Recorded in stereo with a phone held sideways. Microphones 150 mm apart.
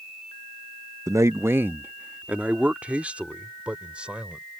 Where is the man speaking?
20° right (ahead or behind); by 4.4 s 5° right (ahead or behind).